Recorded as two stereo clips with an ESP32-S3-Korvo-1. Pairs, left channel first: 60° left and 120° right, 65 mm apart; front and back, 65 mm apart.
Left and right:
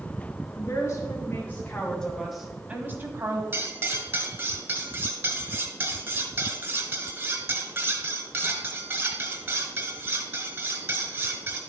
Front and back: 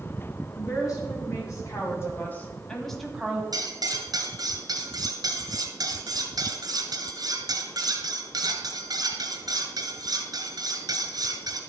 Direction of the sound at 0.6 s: 20° left.